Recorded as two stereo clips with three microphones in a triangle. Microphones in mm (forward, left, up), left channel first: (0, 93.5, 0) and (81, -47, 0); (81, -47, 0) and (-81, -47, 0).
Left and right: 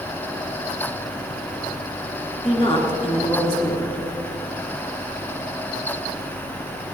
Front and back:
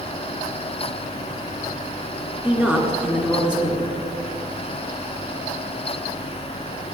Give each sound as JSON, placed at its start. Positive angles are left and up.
{"t": 2.4, "sound": "a woman speaking", "azimuth_deg": 100, "distance_m": 2.0}